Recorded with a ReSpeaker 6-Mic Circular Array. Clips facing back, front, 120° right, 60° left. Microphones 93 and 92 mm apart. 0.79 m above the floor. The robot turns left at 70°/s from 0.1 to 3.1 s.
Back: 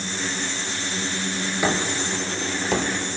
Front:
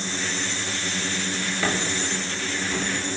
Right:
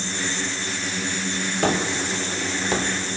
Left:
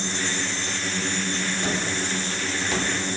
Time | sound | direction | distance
1.6 | a gunshot | 105° right | 2 m